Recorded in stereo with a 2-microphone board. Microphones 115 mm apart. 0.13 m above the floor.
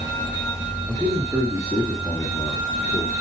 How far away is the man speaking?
About 2.5 m.